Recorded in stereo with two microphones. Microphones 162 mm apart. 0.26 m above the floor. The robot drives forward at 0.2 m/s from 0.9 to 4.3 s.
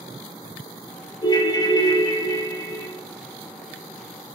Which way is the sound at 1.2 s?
30° left (ahead or behind).